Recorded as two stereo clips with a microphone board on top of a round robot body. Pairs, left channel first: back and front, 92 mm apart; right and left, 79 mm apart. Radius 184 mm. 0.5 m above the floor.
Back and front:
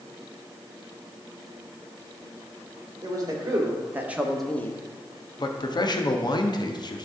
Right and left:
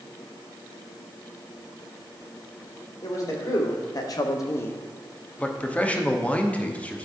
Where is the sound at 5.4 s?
160° right, 1.1 m.